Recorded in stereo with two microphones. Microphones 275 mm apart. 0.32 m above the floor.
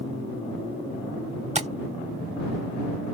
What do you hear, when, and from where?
1.6 s tapping: 25° right (ahead or behind)